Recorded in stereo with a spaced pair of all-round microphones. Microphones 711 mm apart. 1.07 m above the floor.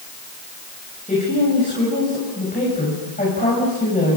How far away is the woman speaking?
About 7 m.